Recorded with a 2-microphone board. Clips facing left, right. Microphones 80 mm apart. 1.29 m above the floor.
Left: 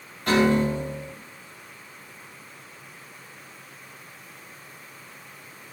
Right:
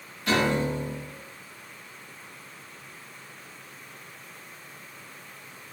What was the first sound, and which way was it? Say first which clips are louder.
A piano: left 4 dB; 45° left (ahead or behind).